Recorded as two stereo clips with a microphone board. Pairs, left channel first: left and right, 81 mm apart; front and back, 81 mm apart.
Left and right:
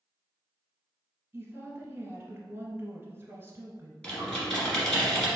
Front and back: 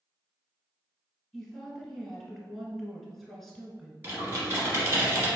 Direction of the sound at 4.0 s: 150° left.